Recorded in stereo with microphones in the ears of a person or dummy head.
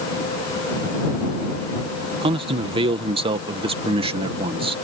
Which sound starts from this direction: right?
A man speaking, at 2.2 s.